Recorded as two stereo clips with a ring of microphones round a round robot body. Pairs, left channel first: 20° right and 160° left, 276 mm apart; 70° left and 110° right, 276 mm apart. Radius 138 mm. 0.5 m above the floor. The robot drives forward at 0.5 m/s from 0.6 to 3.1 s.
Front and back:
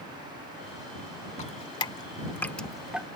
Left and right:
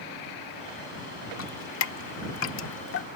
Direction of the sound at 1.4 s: 40° left.